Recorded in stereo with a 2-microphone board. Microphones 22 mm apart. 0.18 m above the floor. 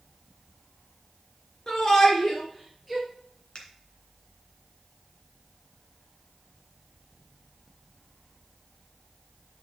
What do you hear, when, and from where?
1.7 s a shout: 25° left (ahead or behind), 3 m; by 3.0 s centre (ahead or behind), 3.5 m
3.5 s a finger snap: 50° left (ahead or behind), 2 m